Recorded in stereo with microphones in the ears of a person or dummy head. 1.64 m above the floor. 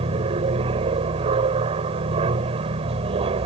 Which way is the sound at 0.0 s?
30° right (ahead or behind).